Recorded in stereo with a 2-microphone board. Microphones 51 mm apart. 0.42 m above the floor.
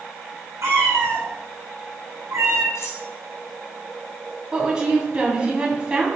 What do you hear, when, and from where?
0.6 s a cat meowing: 70° right (ahead or behind), 4.5 m; by 2.6 s 85° right, 3.5 m
2.8 s cutlery clinking: 80° left, 2.5 m
4.5 s a woman speaking: 20° right (ahead or behind), 2.5 m